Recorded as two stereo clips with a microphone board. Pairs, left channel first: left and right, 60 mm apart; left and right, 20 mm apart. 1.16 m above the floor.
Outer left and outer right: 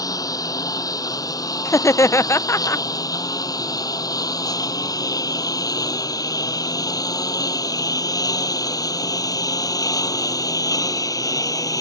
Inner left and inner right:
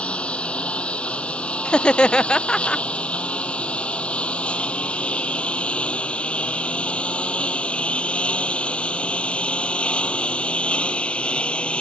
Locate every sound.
0.0 s a lawn mower: 75° left (ahead or behind); by 11.8 s 70° left (ahead or behind)
1.6 s laughter: 50° left (ahead or behind)